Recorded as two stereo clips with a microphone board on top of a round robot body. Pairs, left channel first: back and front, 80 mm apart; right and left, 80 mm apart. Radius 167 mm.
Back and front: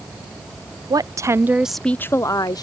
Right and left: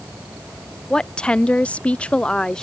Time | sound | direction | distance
0.9 | a woman speaking | 10° right | ?